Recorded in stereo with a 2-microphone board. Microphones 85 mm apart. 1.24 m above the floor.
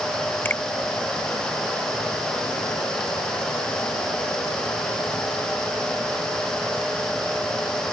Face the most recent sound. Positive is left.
turn(degrees=25)  # may be behind; listen again after turning